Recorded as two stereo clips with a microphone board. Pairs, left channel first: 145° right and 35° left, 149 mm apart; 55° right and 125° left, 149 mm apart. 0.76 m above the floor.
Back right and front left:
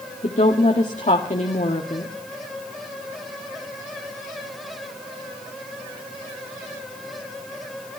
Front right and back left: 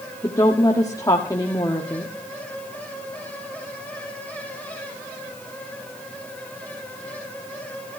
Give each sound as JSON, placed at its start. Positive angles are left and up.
{"t": 0.2, "sound": "a woman speaking", "azimuth_deg": -120, "distance_m": 1.8}